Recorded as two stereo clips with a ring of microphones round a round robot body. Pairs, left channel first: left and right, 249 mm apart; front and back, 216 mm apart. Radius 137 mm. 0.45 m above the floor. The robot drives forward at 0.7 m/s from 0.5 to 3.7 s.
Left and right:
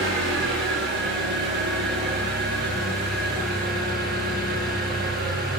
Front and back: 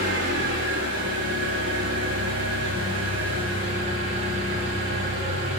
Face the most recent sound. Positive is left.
turn(degrees=-140)